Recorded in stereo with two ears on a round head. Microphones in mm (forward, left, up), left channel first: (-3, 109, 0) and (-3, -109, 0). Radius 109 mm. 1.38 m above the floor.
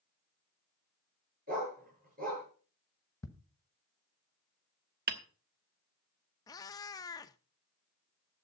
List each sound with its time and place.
1.5 s a dog barking: 40° right (ahead or behind), 7.5 m
3.2 s ticking: 15° left (ahead or behind), 1.1 m
5.1 s hammering: 40° right (ahead or behind), 1.2 m
6.5 s a cat meowing: 15° left (ahead or behind), 0.6 m